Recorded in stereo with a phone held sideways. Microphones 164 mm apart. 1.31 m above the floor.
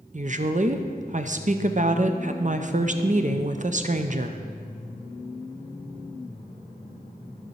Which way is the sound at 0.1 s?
50° right (ahead or behind).